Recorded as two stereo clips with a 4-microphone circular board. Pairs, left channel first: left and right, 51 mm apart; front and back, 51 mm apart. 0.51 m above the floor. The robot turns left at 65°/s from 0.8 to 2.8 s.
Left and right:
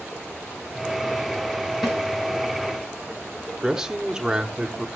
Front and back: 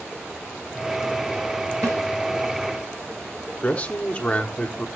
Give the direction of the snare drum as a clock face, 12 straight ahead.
6 o'clock.